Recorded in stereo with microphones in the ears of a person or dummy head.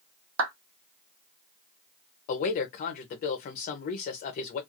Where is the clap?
70° right (ahead or behind), 1.0 m.